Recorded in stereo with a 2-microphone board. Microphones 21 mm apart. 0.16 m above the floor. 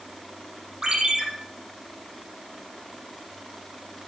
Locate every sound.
0.8 s a ringtone: 40° right (ahead or behind), 3.5 m